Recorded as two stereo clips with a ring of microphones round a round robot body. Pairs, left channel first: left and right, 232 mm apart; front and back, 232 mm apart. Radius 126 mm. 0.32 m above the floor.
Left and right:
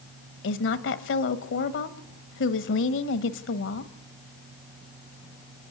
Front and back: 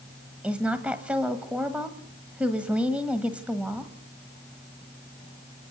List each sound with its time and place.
0.4 s a woman speaking: 95° left, 1.3 m